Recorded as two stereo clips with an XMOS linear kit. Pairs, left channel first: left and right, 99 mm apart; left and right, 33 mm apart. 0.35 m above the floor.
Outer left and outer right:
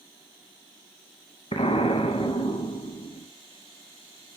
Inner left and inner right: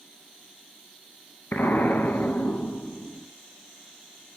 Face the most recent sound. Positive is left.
turn(degrees=80)